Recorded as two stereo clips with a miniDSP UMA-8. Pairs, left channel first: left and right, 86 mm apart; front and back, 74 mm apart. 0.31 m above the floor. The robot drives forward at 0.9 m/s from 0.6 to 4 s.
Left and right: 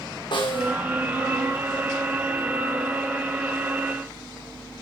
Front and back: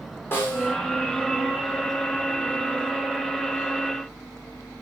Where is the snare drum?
60° left, 6 m; by 0.8 s 65° left, 6 m.